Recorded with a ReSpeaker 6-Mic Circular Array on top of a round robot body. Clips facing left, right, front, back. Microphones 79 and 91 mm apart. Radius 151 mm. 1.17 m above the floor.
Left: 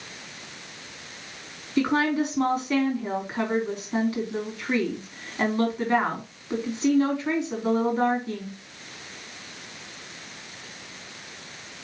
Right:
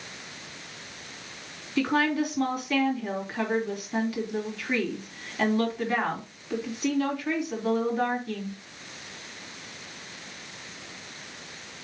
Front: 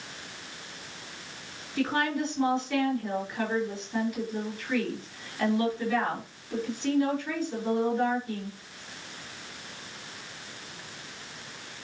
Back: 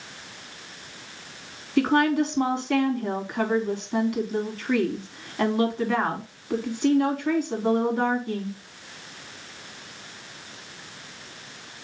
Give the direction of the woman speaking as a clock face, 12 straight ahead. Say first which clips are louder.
Left 2 dB, back 7 dB; 7 o'clock.